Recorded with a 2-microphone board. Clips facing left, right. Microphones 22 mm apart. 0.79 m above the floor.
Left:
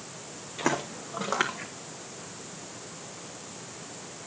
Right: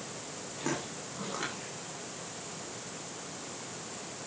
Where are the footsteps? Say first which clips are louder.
Left 7 dB; 45° left (ahead or behind), 2.5 m; by 1.7 s 70° left (ahead or behind), 2.5 m.